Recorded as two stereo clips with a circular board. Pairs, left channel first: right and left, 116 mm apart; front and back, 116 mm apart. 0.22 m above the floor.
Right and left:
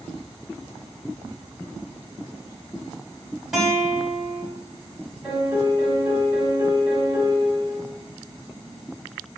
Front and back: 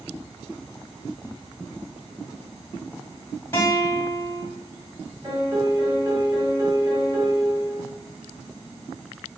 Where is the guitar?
5° left, 1.2 m.